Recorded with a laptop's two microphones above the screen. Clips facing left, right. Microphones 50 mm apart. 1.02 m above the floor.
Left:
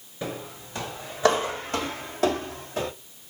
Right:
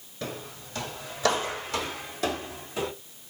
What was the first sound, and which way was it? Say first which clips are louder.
Footsteps: left 3 dB; 15° left (ahead or behind).